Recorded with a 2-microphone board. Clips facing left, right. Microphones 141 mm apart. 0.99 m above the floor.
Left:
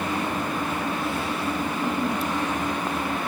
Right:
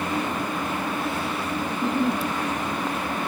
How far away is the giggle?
About 1.4 m.